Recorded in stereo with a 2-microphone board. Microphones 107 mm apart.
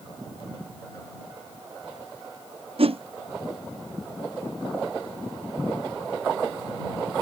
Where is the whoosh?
65° right (ahead or behind).